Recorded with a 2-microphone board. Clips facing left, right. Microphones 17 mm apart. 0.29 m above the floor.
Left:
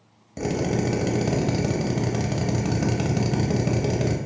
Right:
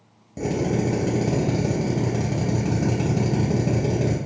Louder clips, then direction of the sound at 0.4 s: Right 1 dB; 35° left (ahead or behind).